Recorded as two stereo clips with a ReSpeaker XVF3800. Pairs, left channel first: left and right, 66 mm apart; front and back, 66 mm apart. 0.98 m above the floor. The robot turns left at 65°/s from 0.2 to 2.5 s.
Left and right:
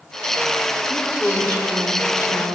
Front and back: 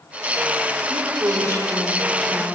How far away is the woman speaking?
About 4 m.